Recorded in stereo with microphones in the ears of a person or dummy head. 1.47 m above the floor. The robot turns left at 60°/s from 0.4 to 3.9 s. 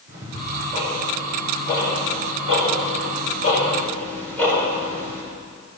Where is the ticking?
40° right (ahead or behind), 4.5 m; by 5.2 s 10° left (ahead or behind), 4.5 m.